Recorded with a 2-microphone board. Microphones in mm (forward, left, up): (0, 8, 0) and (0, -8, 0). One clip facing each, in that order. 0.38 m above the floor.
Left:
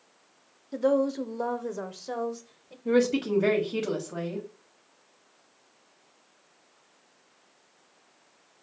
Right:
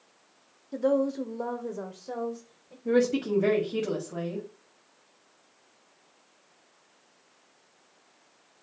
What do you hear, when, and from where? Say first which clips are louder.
0.7 s a woman speaking: left 1 dB; 15° left (ahead or behind), 0.9 m; by 2.8 s 40° left (ahead or behind), 1.4 m
2.9 s a woman speaking: left 1 dB; 15° left (ahead or behind), 1.7 m